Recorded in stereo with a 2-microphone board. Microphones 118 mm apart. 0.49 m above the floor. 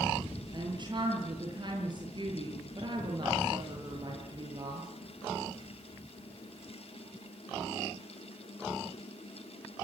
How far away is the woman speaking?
About 8 m.